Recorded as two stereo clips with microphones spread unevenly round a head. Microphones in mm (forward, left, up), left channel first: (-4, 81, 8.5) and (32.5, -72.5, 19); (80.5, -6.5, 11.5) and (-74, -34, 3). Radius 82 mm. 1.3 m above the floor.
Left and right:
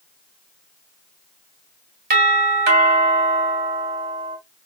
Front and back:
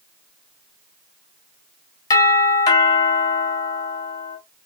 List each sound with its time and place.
2.1 s a doorbell: 55° right, 2.5 m